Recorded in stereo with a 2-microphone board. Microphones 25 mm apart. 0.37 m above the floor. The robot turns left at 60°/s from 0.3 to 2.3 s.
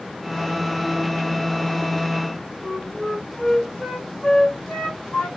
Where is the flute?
35° left (ahead or behind), 3 m.